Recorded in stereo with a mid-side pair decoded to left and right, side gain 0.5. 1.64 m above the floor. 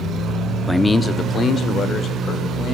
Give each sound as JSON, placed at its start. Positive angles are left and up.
{"t": 0.7, "sound": "a man speaking", "azimuth_deg": 5, "distance_m": 0.5}